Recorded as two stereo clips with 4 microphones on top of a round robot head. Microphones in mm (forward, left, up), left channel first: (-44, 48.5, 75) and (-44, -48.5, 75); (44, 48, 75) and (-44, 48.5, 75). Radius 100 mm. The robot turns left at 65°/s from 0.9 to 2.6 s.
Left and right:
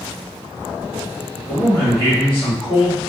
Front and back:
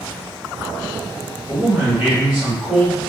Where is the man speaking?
145° left, 1.5 m; by 3.0 s 70° left, 1.5 m.